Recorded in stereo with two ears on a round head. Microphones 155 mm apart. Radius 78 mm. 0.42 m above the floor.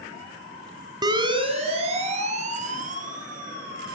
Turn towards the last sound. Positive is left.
turn(degrees=-50)  # may be behind; listen again after turning